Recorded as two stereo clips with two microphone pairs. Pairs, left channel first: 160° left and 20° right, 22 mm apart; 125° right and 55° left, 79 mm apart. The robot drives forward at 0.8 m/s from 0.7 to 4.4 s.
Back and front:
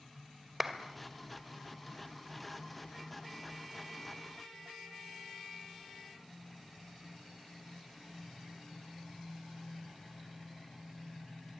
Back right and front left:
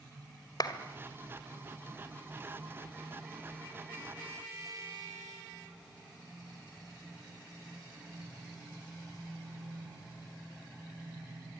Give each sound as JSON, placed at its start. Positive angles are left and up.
{"t": 0.6, "sound": "a clap", "azimuth_deg": -95, "distance_m": 2.0}